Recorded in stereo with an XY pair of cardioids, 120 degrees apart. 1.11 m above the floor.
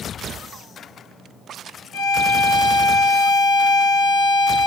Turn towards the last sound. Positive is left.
turn(degrees=45)